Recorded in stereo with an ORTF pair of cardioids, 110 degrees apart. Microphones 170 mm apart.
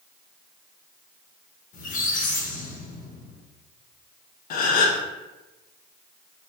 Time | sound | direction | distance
1.7 | a squeak | 55° left | 0.9 m
4.5 | a gasp | 60° left | 0.5 m